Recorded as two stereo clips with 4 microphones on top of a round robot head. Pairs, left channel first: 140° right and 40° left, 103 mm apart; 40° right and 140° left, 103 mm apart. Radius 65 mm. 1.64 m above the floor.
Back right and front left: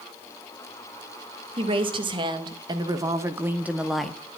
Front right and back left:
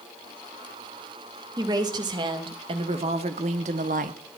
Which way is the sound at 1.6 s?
80° left.